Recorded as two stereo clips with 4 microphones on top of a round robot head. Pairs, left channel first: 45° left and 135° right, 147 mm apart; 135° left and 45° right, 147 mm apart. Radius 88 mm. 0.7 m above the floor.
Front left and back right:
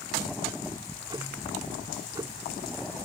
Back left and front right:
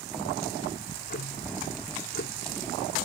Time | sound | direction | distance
0.8 | ticking | 160° left | ?